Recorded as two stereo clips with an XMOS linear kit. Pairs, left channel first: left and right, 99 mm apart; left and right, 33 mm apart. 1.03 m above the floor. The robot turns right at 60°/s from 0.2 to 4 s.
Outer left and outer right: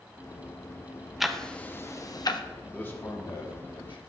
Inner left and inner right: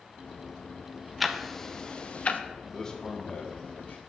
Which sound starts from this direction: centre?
Ticking, at 1.2 s.